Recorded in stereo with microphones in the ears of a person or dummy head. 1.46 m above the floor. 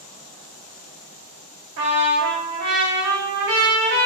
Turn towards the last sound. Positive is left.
turn(degrees=-45)  # may be behind; listen again after turning